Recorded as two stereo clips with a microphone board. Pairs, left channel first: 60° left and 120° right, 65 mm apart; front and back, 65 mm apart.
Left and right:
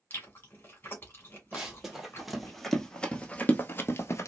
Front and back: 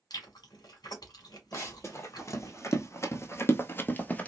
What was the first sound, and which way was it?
Chewing, straight ahead.